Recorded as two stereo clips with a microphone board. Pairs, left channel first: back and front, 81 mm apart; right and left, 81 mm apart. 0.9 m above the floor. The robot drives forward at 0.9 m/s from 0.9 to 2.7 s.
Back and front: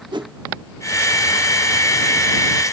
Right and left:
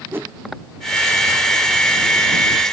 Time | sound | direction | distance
0.1 | a whoosh | 25° left | 1.1 m